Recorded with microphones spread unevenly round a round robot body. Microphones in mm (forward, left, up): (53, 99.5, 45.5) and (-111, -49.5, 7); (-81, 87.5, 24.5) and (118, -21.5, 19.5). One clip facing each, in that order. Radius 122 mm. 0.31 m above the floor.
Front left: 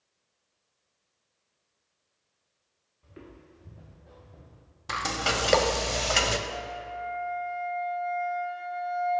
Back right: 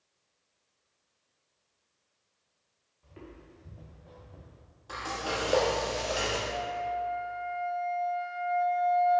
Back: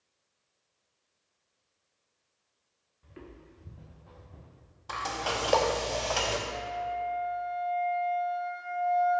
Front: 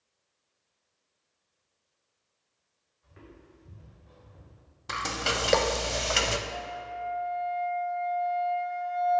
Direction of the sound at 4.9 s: 30° left.